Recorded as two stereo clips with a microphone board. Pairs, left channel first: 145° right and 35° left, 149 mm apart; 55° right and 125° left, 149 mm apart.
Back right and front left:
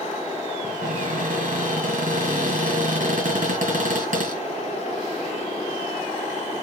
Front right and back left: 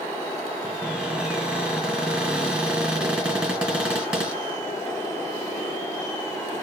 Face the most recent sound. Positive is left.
turn(degrees=45)